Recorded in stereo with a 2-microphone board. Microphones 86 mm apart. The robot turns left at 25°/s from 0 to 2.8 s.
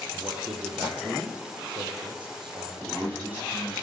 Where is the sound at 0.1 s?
45° right, 3 m; by 3.0 s 110° right, 3 m.